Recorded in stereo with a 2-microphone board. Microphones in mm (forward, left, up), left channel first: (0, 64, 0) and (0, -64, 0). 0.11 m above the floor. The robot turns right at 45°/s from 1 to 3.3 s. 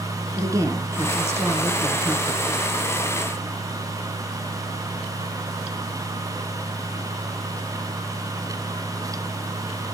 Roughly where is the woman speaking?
Right.